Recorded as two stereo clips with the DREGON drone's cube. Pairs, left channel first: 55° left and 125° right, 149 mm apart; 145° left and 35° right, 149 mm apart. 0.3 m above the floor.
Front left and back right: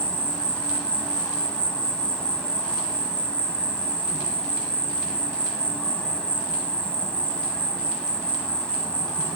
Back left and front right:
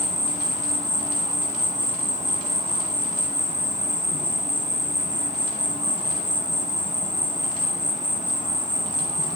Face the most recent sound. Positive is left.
turn(degrees=-25)